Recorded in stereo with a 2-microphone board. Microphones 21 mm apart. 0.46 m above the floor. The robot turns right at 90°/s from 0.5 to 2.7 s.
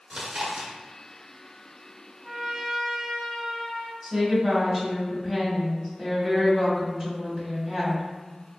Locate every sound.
0.1 s chewing: 35° right (ahead or behind), 0.9 m; by 0.7 s 45° right (ahead or behind), 0.9 m
2.2 s a trumpet: 25° right, 1.9 m; by 3.9 s 15° left, 1.9 m
4.0 s a woman speaking: 25° right (ahead or behind), 1.2 m